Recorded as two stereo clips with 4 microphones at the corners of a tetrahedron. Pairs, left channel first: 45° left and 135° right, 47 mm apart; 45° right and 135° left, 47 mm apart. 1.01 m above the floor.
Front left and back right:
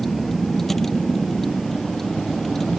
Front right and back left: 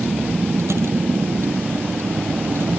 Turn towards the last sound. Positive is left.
turn(degrees=130)